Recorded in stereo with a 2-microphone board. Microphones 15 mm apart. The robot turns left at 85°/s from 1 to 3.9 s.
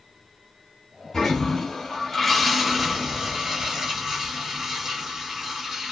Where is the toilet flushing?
125° left, 1.8 m; by 5.9 s 110° right, 1.8 m.